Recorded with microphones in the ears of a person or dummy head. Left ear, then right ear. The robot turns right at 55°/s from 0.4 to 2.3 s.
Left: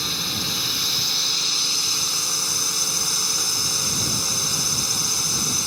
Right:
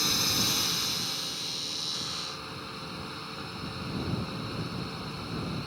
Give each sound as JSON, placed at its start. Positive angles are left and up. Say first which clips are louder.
{"t": 0.0, "sound": "a drone", "louder": "left 2 dB", "azimuth_deg": -10}